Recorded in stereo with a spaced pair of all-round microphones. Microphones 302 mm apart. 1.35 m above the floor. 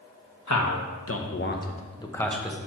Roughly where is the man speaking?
Left.